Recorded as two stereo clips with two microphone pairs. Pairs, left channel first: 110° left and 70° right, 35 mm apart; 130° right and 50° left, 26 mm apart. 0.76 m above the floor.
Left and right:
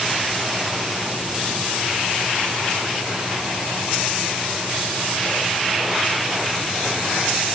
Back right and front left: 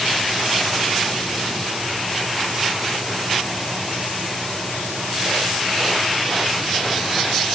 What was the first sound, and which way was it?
Only background noise.